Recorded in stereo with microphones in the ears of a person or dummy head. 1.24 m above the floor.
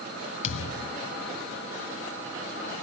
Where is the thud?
35° left (ahead or behind).